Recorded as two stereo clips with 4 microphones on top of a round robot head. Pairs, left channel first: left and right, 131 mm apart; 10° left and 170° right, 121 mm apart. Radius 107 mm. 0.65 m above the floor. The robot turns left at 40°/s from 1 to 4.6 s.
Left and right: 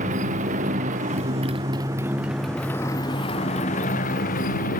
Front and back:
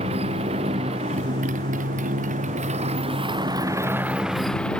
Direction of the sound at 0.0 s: 125° right.